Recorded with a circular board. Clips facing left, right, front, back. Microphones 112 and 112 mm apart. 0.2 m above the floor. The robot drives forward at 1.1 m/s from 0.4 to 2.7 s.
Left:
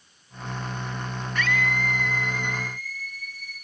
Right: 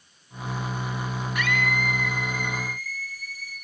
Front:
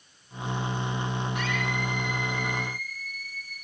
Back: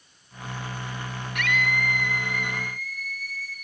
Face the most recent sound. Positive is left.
turn(degrees=-170)